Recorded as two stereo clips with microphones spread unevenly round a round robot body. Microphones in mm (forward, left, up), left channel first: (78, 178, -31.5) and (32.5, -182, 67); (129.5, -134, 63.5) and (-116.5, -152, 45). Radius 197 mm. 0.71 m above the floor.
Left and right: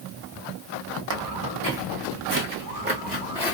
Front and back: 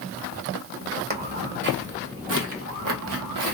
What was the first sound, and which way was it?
Footsteps, 125° right.